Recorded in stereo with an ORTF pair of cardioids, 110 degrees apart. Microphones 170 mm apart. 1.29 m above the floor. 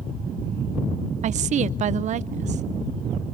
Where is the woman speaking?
45° right, 0.6 m.